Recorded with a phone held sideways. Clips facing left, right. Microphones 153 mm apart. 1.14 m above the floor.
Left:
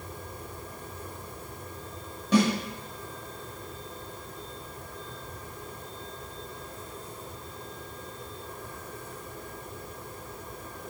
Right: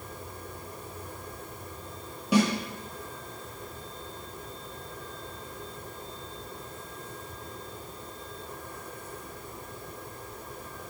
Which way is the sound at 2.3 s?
10° right (ahead or behind).